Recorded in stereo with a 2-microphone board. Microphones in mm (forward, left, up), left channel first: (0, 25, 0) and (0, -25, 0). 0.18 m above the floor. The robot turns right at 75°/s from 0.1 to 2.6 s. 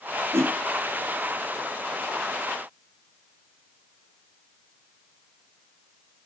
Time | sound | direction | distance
0.3 | a whoosh | 55° right (ahead or behind) | 0.8 m